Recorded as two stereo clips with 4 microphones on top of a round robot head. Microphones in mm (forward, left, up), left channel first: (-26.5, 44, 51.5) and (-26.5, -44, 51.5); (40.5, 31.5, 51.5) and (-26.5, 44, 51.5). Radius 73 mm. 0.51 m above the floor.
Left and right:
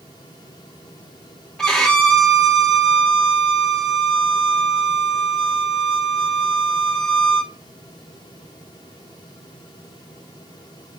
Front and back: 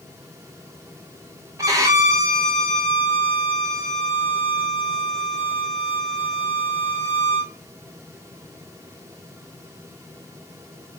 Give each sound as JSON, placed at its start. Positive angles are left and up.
{"t": 1.6, "sound": "a violin", "azimuth_deg": 170, "distance_m": 0.7}